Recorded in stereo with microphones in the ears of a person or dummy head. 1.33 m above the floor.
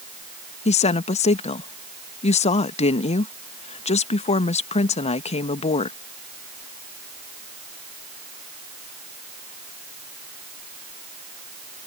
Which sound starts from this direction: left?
A woman speaking, at 0.7 s.